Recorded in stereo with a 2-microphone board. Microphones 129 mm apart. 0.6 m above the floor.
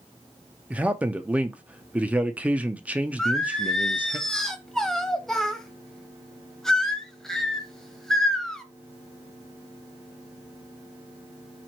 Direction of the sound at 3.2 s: 5° left (ahead or behind).